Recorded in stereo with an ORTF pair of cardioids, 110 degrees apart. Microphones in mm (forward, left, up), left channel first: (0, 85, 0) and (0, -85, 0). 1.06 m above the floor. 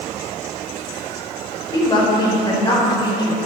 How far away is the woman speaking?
About 4 m.